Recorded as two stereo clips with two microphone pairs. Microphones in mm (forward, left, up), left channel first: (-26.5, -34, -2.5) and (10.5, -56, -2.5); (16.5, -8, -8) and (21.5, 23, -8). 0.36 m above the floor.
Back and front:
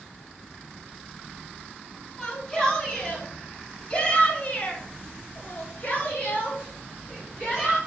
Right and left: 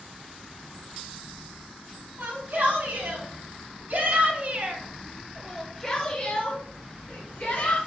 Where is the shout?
75° left, 4 m; by 7.8 s 140° right, 3 m.